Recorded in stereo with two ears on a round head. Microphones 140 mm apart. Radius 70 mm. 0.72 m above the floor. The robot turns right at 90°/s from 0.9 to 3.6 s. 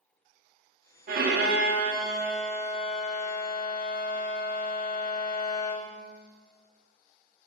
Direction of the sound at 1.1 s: 115° right.